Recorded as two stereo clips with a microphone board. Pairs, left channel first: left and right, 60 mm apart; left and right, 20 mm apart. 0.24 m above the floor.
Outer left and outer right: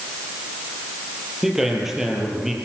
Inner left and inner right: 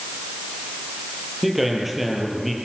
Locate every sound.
1.4 s a man speaking: 5° right (ahead or behind), 5 m